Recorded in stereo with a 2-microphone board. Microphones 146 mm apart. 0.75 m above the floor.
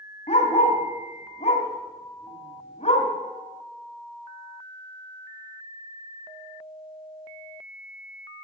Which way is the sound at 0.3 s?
60° left (ahead or behind).